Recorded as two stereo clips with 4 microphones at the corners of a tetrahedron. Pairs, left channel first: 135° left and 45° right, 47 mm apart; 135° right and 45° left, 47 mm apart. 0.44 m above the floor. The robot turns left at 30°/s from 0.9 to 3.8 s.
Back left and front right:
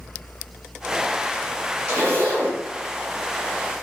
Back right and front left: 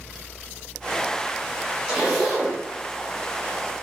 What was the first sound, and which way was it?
A zipper, 30° right.